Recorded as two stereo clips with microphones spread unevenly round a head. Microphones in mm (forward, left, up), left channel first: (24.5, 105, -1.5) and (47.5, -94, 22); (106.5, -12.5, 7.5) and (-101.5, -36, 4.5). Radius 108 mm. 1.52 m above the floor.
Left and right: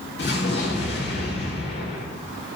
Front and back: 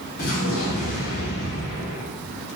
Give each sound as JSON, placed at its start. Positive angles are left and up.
{"t": 0.2, "sound": "an explosion", "azimuth_deg": 60, "distance_m": 3.5}